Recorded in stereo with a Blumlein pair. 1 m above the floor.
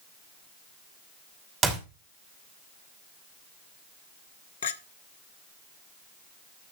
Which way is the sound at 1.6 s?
25° right.